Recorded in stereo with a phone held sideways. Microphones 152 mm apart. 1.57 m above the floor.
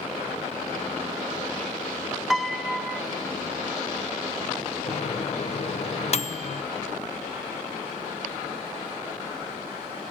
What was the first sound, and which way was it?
A piano, centre (ahead or behind).